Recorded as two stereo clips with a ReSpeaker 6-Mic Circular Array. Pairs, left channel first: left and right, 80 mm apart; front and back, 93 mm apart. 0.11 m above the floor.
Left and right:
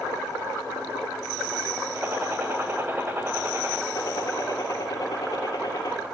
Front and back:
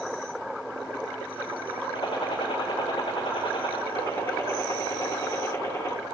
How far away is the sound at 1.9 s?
About 4.5 m.